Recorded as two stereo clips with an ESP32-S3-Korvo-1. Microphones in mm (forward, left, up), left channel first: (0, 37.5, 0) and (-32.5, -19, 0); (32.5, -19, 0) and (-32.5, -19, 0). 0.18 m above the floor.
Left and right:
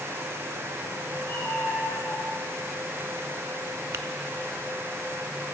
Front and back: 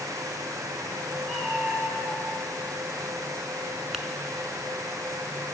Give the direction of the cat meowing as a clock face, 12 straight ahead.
9 o'clock.